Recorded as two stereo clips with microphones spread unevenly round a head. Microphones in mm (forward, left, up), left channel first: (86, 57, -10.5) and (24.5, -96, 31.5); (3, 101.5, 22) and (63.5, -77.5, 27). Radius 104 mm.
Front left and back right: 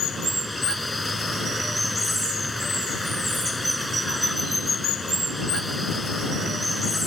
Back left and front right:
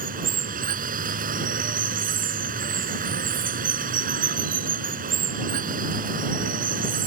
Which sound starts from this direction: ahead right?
Running water, at 0.0 s.